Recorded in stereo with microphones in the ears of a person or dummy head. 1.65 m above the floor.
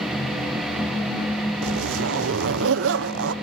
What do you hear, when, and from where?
1.6 s a zipper: 80° right, 0.9 m